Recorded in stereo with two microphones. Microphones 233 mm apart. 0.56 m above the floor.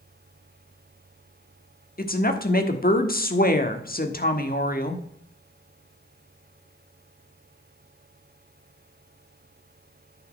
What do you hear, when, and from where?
2.0 s a woman speaking: 40° left (ahead or behind), 1.2 m